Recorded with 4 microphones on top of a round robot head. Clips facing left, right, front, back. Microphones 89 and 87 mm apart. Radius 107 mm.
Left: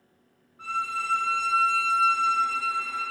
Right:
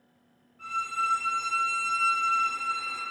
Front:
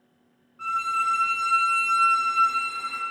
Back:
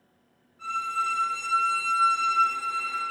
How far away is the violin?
About 1.4 m.